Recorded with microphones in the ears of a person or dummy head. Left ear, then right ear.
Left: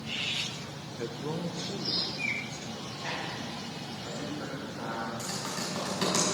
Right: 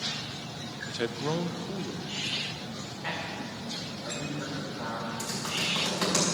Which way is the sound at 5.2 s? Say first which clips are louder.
Right 4 dB; 5° left (ahead or behind).